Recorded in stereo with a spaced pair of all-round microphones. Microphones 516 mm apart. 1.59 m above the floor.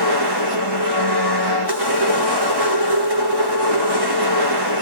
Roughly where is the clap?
No clap in this recording.